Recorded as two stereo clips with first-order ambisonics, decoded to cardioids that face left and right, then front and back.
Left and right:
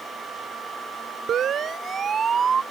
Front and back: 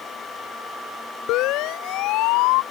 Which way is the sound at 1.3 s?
30° right.